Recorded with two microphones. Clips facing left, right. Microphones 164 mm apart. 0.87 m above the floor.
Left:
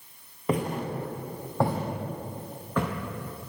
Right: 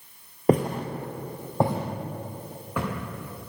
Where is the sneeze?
No sneeze in this recording.